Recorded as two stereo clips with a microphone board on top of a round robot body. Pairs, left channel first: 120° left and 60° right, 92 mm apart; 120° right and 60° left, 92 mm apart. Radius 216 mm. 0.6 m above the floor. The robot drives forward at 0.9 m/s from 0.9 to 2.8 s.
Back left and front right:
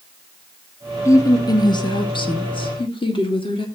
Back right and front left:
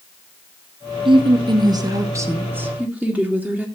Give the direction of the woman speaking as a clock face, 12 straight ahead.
10 o'clock.